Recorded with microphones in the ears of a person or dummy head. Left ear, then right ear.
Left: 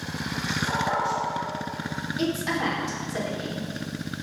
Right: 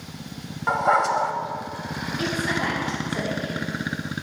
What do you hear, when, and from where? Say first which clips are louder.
0.7 s a dog barking: right 8 dB; 55° right (ahead or behind), 1.0 m
2.2 s a woman speaking: right 1 dB; 60° left (ahead or behind), 3 m